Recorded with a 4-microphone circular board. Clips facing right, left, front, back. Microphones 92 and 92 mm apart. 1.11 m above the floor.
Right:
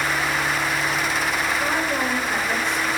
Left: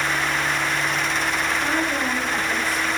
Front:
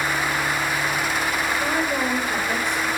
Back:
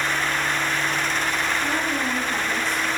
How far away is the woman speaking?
About 5 m.